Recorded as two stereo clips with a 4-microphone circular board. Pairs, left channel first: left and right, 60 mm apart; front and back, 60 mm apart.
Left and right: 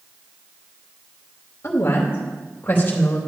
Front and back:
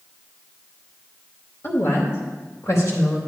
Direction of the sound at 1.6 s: 45° left.